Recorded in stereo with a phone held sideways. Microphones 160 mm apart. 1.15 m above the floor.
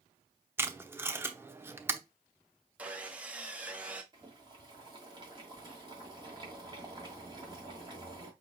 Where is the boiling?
30° right (ahead or behind), 1.7 m.